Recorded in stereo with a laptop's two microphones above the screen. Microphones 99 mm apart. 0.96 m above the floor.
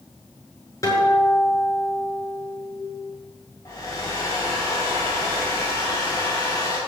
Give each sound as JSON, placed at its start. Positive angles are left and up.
{"t": 0.8, "sound": "a guitar", "side_deg": 35, "distance_m": 7.5}
{"t": 3.6, "sound": "a hair dryer", "side_deg": 35, "distance_m": 5.5}